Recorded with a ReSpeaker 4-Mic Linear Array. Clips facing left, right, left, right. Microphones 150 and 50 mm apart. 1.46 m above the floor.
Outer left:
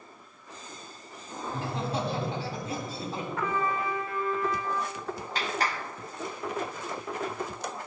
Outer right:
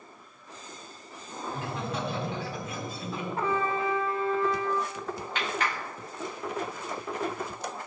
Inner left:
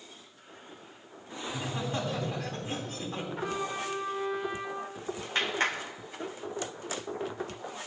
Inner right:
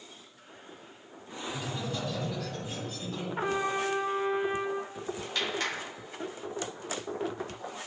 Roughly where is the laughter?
Left.